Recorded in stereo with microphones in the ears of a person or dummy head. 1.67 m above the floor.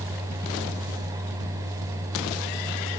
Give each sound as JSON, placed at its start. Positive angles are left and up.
{"t": 0.0, "sound": "a fan", "side_deg": -15, "distance_m": 5.0}